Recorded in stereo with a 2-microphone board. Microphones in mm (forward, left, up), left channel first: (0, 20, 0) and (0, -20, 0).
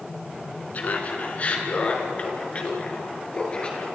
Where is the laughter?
40° left (ahead or behind), 4 m; by 3.9 s 25° left (ahead or behind), 6 m.